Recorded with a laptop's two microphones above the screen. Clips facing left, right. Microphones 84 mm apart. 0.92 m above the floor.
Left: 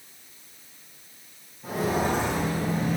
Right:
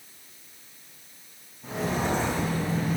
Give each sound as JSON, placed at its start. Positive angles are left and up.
{"t": 1.6, "sound": "footsteps", "side_deg": 5, "distance_m": 3.5}